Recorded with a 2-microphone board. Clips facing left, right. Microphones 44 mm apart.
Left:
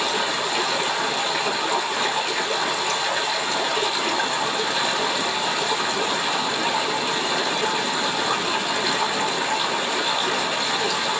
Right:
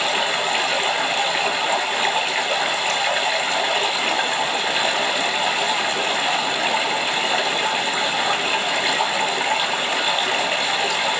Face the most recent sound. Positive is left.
turn(degrees=-45)  # may be behind; listen again after turning